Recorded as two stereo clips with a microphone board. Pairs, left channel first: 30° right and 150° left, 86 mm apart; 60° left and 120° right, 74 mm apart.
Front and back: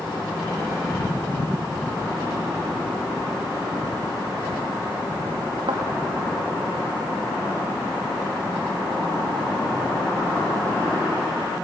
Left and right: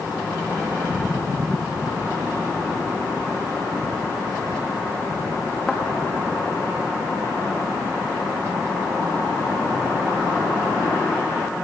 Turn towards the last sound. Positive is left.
turn(degrees=140)